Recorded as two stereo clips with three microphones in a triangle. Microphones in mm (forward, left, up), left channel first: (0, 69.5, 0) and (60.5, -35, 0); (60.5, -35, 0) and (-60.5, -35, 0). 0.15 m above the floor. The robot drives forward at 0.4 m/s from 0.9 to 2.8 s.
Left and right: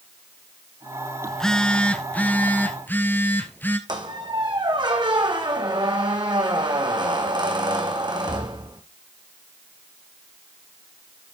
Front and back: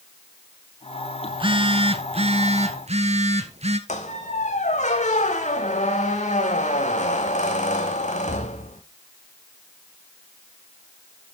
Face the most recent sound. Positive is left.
turn(degrees=-5)